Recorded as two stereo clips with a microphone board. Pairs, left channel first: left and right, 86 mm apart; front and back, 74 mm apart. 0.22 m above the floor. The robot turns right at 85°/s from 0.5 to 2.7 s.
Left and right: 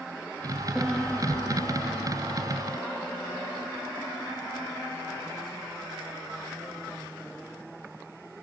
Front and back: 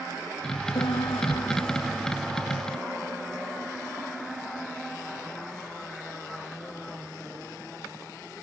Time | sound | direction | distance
0.8 | a piano | 10° right | ?